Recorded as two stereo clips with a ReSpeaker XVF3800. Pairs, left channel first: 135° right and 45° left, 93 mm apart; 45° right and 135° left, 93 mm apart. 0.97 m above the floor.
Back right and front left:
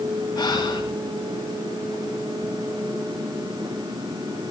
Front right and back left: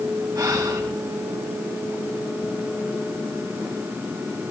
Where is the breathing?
175° right, 6.5 m.